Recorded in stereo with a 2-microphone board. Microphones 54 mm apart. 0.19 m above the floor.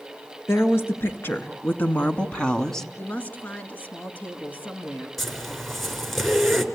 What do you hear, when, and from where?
0.5 s a woman speaking: 50° left (ahead or behind), 3 m; by 2.9 s 5° left (ahead or behind), 1.4 m
3.0 s a woman speaking: 35° left (ahead or behind), 2 m
5.2 s a zipper: centre (ahead or behind), 3 m